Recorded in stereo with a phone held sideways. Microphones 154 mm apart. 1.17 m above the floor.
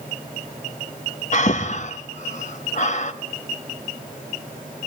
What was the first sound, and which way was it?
Breathing, 50° left (ahead or behind).